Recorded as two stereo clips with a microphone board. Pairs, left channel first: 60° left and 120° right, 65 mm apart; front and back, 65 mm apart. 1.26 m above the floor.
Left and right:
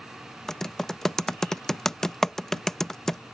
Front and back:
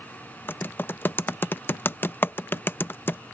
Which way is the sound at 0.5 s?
15° right.